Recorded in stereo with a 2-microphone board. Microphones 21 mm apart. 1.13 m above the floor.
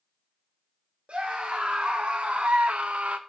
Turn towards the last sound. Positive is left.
turn(degrees=-80)